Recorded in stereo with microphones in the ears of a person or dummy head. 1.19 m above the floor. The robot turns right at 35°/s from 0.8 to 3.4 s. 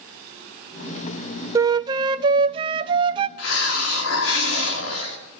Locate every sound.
1.6 s a flute: 20° right (ahead or behind), 0.6 m; by 3.3 s 25° right (ahead or behind), 0.6 m
3.4 s a hiss: 85° left, 2.5 m